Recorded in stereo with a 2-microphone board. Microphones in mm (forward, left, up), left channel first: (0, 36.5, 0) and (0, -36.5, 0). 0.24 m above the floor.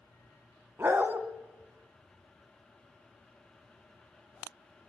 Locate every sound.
0.8 s a dog barking: 30° right (ahead or behind), 1.0 m